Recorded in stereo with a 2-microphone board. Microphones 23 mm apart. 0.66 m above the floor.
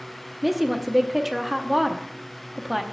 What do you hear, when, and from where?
0.4 s a woman speaking: 5° right (ahead or behind), 0.8 m